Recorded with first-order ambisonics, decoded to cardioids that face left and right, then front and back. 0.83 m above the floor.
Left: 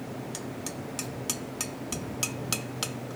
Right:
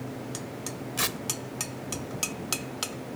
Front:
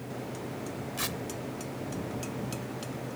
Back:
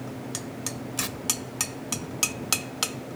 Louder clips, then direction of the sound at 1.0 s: Right 13 dB, back 2 dB; 90° right.